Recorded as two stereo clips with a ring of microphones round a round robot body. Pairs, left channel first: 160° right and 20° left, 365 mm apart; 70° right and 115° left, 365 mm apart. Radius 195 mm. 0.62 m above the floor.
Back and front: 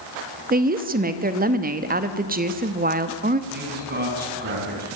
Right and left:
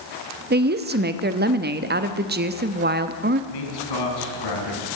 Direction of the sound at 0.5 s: 70° left.